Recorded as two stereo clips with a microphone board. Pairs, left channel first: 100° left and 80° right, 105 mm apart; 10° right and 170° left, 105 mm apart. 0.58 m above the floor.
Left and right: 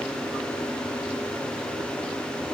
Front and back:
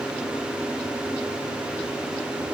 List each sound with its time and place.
Only background noise.